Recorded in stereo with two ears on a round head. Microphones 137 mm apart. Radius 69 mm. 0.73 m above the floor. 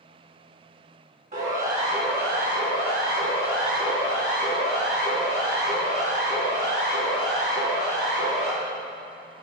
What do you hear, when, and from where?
1.3 s a siren: 60° right (ahead or behind), 6.5 m; by 8.5 s 85° right, 16 m